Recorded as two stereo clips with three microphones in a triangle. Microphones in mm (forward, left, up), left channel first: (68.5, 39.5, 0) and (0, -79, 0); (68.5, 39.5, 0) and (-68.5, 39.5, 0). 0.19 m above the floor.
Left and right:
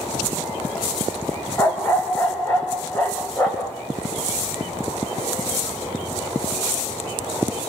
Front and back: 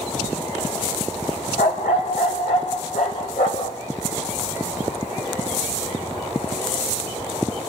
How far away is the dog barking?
About 3 m.